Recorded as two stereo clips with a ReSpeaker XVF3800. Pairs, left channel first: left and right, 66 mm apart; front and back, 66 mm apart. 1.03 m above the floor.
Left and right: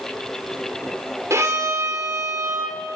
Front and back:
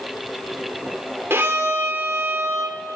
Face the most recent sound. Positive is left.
turn(degrees=-125)